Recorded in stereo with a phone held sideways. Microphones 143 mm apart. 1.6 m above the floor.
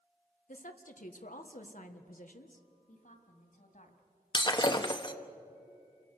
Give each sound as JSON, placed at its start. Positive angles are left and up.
{"t": 0.5, "sound": "a woman speaking", "side_deg": 65, "distance_m": 1.5}
{"t": 2.9, "sound": "a woman speaking", "side_deg": 65, "distance_m": 3.0}
{"t": 4.3, "sound": "breaking glass", "side_deg": 30, "distance_m": 1.1}